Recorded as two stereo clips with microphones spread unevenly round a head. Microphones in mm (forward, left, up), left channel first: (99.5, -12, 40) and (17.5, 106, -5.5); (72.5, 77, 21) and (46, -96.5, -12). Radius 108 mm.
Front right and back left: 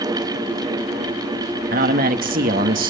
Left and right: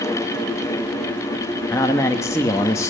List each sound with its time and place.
1.7 s a man speaking: 160° left, 1.1 m